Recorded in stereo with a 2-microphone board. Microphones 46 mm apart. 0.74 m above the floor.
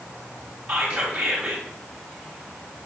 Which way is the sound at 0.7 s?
30° right (ahead or behind).